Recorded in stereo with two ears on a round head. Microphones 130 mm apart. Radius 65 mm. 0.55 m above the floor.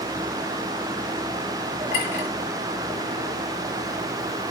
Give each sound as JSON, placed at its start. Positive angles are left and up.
{"t": 1.9, "sound": "a clink", "side_deg": 50, "distance_m": 8.0}